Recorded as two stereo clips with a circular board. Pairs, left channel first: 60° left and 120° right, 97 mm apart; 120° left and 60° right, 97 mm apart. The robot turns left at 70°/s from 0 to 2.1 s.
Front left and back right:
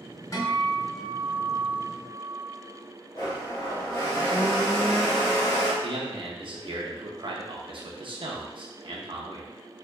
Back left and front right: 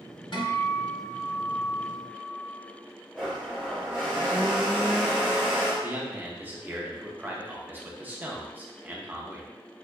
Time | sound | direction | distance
0.3 | a guitar | 105° left | 0.8 m
3.1 | a blender | 20° left | 1.5 m
5.8 | a man speaking | 130° right | 0.9 m